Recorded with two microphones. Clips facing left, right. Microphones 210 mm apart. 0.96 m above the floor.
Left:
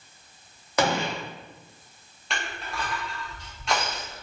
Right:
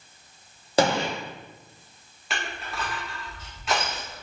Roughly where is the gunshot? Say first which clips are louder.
Right 3 dB; right.